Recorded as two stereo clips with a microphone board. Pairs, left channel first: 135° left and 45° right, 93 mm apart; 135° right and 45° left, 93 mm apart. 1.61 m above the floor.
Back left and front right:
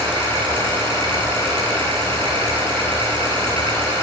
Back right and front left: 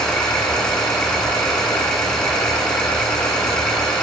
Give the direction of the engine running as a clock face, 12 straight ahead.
2 o'clock.